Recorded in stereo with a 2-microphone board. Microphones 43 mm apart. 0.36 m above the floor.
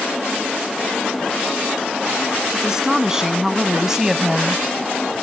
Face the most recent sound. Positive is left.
turn(degrees=-15)  # may be behind; listen again after turning